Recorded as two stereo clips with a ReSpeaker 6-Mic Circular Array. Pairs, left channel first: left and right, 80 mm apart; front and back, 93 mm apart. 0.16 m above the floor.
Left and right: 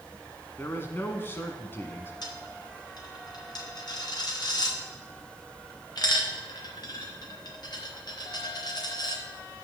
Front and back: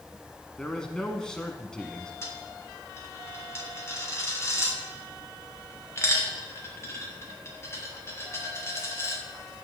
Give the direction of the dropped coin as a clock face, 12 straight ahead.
10 o'clock.